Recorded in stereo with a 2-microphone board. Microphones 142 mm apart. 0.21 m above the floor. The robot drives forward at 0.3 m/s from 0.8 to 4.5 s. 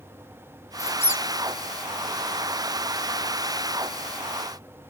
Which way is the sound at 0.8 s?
20° left (ahead or behind).